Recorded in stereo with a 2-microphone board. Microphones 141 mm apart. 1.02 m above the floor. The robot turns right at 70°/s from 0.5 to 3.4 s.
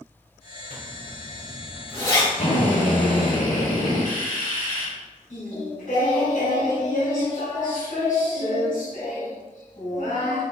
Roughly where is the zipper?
Right.